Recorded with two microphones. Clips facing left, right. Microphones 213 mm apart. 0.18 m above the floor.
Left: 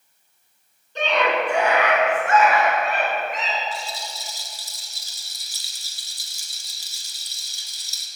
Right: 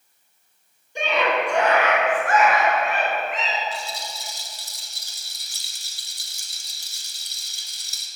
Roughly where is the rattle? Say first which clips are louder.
Even; right.